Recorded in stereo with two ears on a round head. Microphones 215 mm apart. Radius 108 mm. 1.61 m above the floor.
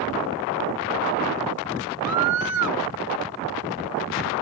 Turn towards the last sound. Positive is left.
turn(degrees=-85)